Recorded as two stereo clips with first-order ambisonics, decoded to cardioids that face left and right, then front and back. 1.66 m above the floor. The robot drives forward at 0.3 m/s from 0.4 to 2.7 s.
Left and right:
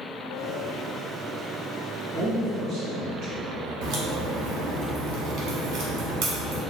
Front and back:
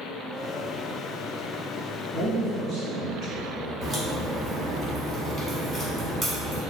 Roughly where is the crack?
Right.